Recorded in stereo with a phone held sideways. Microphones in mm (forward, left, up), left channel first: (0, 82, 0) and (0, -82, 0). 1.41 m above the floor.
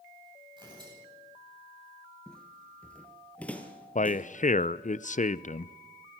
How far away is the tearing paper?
About 9.5 m.